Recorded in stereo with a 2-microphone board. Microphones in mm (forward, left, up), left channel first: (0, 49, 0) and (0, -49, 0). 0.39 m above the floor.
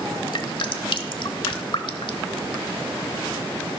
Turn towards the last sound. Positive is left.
turn(degrees=55)  # may be behind; listen again after turning